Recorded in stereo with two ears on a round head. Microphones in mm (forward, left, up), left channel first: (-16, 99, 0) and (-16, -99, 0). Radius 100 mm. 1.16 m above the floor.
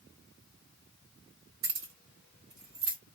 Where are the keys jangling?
65° right (ahead or behind), 1.9 m; by 3.0 s 20° right (ahead or behind), 1.7 m.